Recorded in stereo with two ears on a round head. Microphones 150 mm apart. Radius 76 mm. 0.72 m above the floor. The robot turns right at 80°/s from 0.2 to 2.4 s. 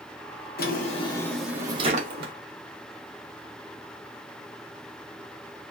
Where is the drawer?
115° left, 0.8 m; by 2.3 s 105° right, 0.8 m.